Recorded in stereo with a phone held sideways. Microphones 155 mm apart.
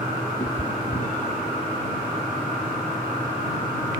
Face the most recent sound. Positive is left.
turn(degrees=55)  # may be behind; listen again after turning